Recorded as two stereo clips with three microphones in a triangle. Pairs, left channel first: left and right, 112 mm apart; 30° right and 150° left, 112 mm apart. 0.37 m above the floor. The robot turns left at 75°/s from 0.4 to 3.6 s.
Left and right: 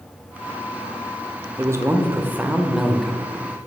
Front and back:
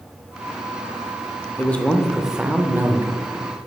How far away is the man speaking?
About 0.8 m.